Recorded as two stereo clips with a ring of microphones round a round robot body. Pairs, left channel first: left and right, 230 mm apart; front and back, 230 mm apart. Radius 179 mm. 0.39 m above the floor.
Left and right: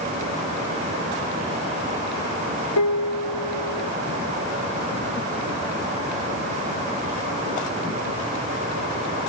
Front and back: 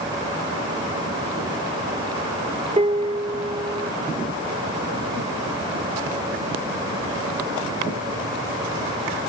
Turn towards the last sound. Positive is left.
turn(degrees=115)